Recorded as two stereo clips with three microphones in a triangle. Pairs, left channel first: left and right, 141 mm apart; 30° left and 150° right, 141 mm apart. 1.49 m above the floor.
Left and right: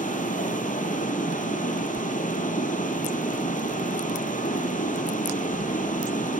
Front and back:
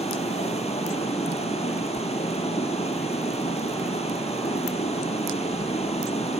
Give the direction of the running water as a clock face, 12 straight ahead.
10 o'clock.